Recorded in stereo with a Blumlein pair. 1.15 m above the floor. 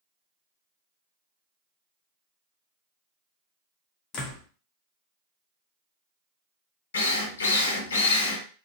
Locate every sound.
4.1 s a door slam: 25° left, 1.0 m
6.9 s a drill: 65° left, 0.9 m